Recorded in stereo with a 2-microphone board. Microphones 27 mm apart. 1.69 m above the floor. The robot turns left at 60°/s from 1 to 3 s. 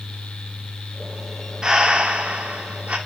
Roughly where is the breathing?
Ahead right.